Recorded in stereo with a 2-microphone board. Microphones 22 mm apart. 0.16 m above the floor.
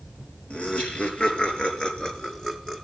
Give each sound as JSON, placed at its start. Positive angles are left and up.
{"t": 0.5, "sound": "laughter", "side_deg": 60, "distance_m": 4.5}